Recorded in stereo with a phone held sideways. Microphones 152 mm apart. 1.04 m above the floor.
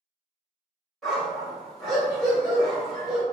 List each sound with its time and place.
1.0 s a dog barking: centre (ahead or behind), 1.3 m